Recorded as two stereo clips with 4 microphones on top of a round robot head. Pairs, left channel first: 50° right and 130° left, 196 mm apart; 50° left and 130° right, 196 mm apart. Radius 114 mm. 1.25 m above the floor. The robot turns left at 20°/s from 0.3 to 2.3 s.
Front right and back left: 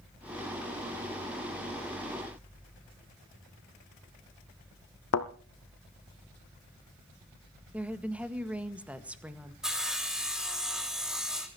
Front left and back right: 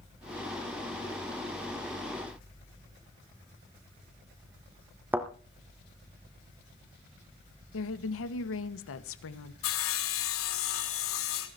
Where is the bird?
I don't hear a bird.